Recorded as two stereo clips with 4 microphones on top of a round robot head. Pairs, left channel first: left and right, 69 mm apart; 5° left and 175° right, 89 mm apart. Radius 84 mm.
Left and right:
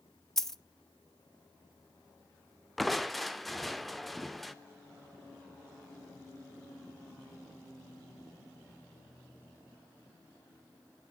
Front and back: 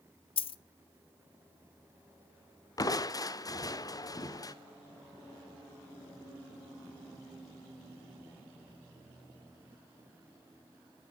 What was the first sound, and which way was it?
A dropped coin, 5° left.